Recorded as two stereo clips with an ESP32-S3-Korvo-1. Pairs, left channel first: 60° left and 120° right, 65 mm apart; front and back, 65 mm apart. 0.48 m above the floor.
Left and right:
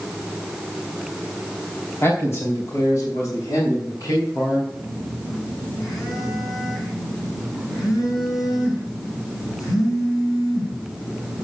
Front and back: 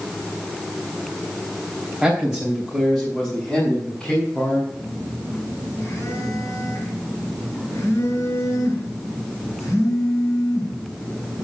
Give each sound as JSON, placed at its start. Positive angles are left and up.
{"t": 2.0, "sound": "a man speaking", "azimuth_deg": 105, "distance_m": 3.0}
{"t": 4.7, "sound": "a phone buzzing", "azimuth_deg": 45, "distance_m": 5.0}